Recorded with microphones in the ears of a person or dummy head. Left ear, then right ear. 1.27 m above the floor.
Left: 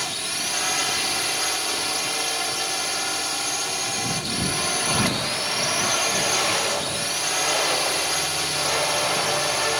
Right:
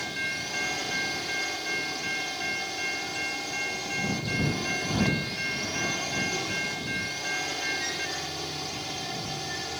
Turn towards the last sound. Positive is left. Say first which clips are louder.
# left 4 dB
turn(degrees=45)  # may be behind; listen again after turning